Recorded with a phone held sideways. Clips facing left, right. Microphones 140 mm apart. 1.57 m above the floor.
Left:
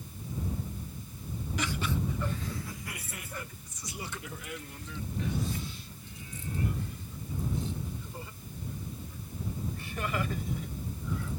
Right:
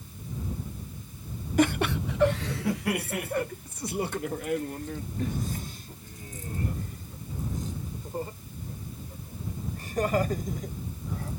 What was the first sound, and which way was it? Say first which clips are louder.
Laughter: right 10 dB; 50° right (ahead or behind).